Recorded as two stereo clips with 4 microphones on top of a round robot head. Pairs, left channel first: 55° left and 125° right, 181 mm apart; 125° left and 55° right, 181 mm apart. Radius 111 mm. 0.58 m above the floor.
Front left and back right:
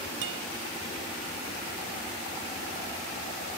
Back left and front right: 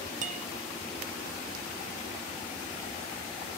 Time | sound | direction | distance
0.2 | a guitar | 105° right | ?